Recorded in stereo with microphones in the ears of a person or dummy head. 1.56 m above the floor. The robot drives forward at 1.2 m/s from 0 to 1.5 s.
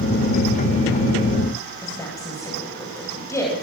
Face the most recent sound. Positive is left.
turn(degrees=15)  # may be behind; listen again after turning